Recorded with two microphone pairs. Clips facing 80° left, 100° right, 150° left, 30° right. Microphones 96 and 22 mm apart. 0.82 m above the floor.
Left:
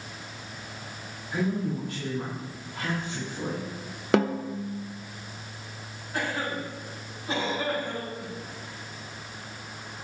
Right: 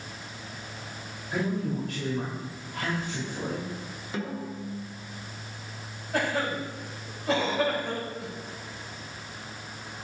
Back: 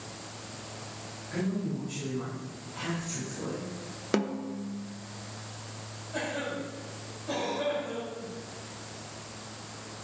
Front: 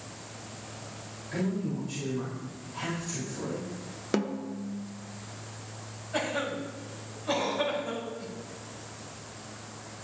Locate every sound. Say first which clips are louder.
1.3 s a man speaking: left 1 dB, front 1 dB; 105° right, 4 m
4.1 s a snare drum: left 10 dB, even; 60° left, 0.5 m
6.1 s a cough: right 3 dB, front 3 dB; 90° right, 3.5 m